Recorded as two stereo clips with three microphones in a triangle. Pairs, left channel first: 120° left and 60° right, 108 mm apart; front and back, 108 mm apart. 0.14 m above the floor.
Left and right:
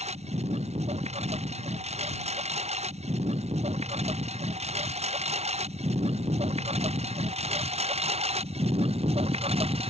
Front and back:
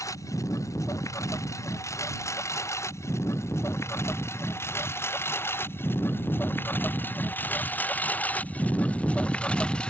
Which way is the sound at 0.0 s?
60° right.